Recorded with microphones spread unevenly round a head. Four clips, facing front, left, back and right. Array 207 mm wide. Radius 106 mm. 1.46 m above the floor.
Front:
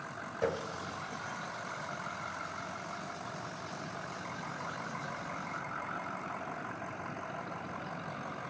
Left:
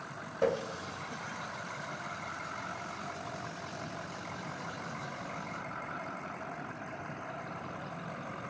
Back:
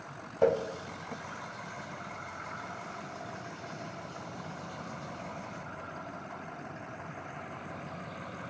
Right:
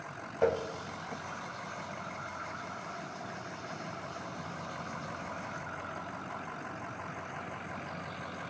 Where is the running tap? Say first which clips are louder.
Right 1 dB, back 8 dB; 175° right, 1.4 m.